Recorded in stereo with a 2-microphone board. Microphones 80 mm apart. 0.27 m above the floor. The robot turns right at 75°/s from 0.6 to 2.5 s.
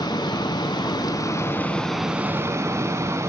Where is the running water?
80° left, 0.8 m; by 3.3 s 140° right, 0.8 m.